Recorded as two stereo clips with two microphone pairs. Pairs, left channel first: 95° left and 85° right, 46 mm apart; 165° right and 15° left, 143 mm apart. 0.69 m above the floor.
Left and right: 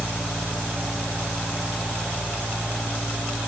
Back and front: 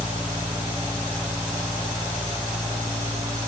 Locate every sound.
Only background noise.